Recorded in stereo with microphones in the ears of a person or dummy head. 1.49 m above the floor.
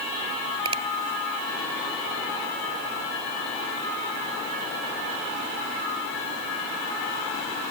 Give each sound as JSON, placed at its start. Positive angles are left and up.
{"t": 0.7, "sound": "a finger snap", "side_deg": -30}